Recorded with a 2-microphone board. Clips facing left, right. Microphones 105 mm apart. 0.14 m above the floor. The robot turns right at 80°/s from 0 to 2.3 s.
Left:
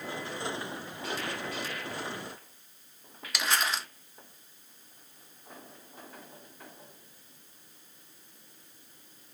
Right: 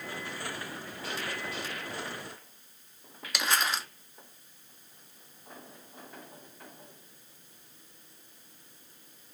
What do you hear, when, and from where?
3.3 s crumpling: centre (ahead or behind), 0.8 m